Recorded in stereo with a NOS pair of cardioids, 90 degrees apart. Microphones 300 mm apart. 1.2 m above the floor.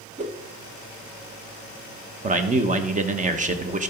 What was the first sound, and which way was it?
A whoosh, 25° right.